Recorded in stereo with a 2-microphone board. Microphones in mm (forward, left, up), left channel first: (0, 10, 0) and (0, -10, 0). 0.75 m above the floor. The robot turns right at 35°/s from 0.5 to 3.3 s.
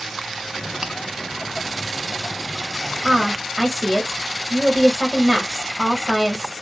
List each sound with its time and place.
0.8 s chewing: 50° right (ahead or behind), 0.6 m
3.0 s a woman speaking: 15° right (ahead or behind), 1.1 m; by 6.5 s 10° right (ahead or behind), 1.1 m